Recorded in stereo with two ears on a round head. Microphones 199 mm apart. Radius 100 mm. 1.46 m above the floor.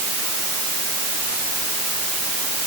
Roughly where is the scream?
I don't hear a scream.